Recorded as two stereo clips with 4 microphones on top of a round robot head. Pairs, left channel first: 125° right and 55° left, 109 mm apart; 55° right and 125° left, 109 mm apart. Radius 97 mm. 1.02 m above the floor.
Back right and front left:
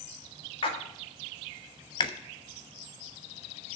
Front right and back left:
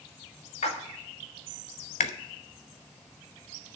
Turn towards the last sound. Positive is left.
turn(degrees=-75)